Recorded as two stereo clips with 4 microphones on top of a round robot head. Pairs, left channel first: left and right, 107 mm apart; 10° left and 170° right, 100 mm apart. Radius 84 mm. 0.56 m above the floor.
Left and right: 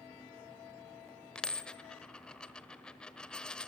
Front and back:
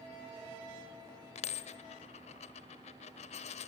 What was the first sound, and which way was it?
A dropped coin, 10° left.